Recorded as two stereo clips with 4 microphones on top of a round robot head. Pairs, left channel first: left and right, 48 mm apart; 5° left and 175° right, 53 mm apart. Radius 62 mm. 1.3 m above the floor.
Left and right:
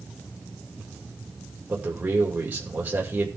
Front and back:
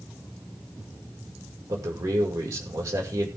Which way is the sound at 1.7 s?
145° right.